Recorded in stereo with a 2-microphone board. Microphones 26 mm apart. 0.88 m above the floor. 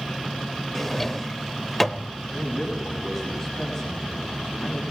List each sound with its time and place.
0.8 s a drawer: 15° left (ahead or behind), 0.6 m
2.3 s a man speaking: 15° left (ahead or behind), 6.5 m